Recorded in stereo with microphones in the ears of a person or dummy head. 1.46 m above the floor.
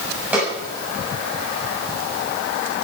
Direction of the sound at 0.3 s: 10° right (ahead or behind).